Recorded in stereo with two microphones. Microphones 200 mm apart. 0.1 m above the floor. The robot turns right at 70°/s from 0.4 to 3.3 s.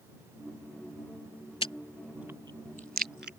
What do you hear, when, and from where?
1.6 s chewing: 25° left (ahead or behind); by 3.3 s 55° right (ahead or behind)